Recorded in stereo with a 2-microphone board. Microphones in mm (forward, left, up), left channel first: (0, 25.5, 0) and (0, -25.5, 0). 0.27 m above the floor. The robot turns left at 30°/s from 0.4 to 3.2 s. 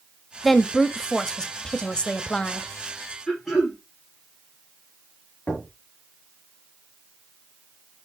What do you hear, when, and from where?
0.4 s a woman speaking: 5° left (ahead or behind), 0.9 m; by 2.7 s 20° left (ahead or behind), 0.9 m
3.3 s throat clearing: centre (ahead or behind), 6 m
5.5 s knocking: 25° left (ahead or behind), 5 m